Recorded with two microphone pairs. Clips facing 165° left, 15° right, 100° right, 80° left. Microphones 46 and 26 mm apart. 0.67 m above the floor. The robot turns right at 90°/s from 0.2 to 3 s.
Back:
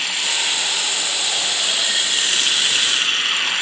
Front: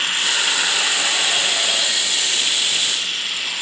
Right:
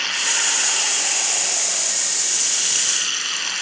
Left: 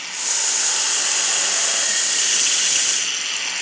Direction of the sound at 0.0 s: 65° right.